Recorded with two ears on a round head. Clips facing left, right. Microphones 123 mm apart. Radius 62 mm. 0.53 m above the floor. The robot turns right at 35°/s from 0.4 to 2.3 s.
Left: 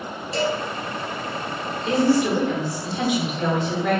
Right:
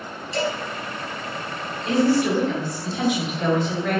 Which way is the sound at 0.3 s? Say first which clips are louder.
Left 2 dB; 30° left (ahead or behind).